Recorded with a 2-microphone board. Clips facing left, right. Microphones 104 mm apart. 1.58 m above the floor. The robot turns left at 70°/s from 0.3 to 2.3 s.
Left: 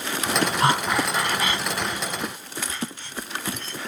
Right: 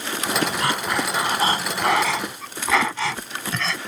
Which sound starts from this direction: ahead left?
Breathing, at 0.6 s.